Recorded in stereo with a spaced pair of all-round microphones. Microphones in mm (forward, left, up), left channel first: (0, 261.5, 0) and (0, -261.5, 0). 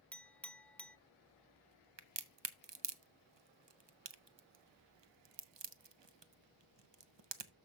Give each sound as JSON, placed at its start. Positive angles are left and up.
{"t": 0.1, "sound": "a clink", "side_deg": 5, "distance_m": 0.5}
{"t": 2.0, "sound": "a crack", "side_deg": -55, "distance_m": 0.8}